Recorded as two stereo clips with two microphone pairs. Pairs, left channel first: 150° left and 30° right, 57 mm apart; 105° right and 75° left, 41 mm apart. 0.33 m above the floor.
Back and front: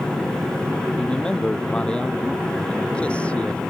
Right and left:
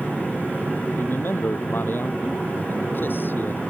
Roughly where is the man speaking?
Behind right.